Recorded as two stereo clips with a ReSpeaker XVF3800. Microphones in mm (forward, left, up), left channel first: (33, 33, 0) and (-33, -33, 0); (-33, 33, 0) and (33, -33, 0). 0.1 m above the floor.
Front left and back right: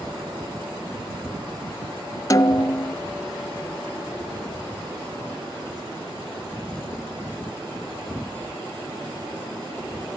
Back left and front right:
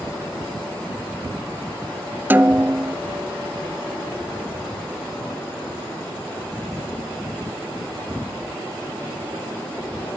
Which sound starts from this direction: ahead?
A snare drum, at 2.3 s.